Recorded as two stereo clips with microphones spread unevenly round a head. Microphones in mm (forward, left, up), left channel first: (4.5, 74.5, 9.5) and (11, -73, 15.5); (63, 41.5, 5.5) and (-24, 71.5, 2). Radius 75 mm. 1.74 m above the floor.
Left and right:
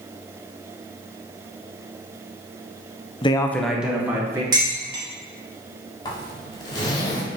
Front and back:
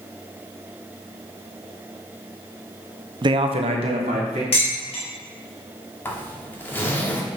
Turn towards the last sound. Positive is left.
turn(degrees=40)